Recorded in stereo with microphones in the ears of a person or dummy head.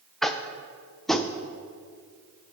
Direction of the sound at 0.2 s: 5° left (ahead or behind).